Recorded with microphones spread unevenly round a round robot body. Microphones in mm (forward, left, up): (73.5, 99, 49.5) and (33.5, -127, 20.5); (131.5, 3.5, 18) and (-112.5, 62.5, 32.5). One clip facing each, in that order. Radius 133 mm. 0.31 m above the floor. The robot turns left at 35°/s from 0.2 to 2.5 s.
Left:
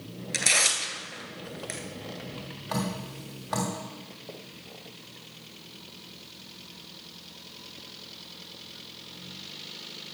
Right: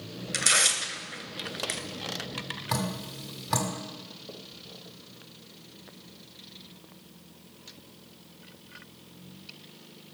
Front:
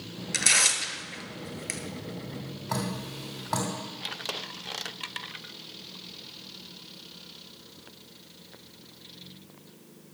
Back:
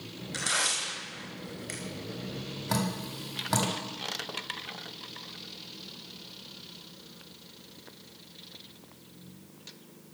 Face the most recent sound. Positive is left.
turn(degrees=-145)